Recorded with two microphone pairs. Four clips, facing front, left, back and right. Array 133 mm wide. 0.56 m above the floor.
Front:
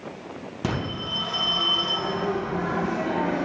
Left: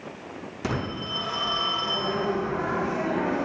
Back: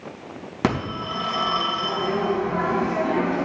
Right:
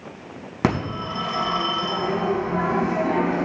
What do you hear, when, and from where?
0.6 s a phone ringing: 125° right, 4 m